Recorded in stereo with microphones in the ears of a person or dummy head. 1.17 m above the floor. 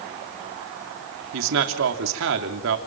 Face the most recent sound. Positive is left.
turn(degrees=-70)  # may be behind; listen again after turning